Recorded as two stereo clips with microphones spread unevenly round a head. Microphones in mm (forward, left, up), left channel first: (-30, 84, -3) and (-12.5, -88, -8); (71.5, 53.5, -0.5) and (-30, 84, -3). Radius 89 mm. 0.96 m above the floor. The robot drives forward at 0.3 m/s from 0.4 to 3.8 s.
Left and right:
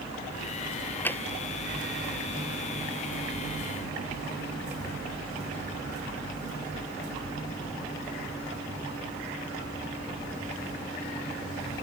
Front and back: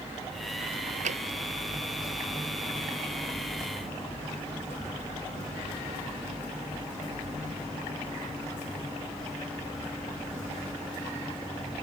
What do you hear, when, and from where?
1.1 s tapping: 175° left